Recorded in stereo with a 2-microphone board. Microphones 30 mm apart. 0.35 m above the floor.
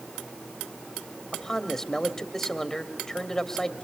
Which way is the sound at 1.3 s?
15° left (ahead or behind).